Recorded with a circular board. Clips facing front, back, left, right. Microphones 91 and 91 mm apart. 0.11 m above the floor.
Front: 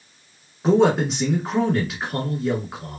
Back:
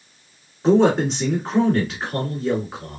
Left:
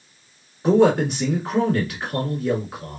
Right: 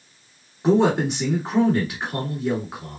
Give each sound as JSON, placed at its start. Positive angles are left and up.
{"t": 0.6, "sound": "a man speaking", "azimuth_deg": -80, "distance_m": 1.6}